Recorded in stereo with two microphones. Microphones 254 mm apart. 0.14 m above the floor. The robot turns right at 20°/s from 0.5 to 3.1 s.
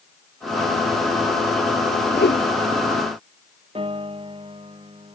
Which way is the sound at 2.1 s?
45° left (ahead or behind).